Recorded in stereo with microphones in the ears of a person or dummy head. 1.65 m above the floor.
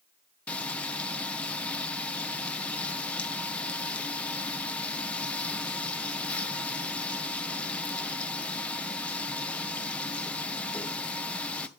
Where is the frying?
Centre (ahead or behind), 0.8 m.